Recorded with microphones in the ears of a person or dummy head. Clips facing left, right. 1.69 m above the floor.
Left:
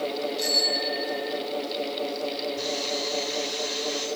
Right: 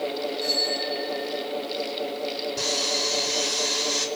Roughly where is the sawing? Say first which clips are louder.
Even; right.